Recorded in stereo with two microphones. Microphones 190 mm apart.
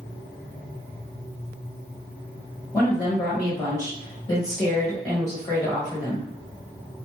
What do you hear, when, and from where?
2.7 s a woman speaking: 20° left (ahead or behind), 1.3 m